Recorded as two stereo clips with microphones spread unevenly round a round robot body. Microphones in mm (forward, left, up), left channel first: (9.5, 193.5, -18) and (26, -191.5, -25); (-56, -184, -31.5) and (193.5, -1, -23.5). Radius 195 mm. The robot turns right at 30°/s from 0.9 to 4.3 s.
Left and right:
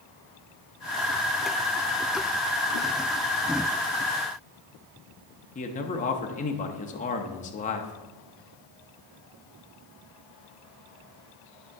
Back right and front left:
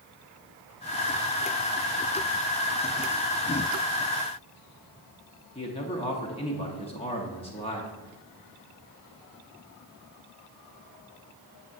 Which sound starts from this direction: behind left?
A man speaking, at 5.5 s.